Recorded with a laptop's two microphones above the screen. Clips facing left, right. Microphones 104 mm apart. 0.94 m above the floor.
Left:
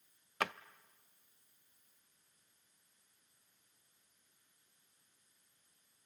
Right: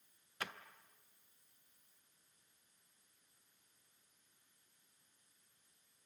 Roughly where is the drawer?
Left.